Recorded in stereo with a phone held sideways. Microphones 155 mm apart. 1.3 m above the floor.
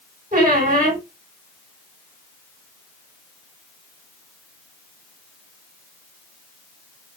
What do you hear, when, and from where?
0.3 s a squeak: 60° right (ahead or behind), 2.5 m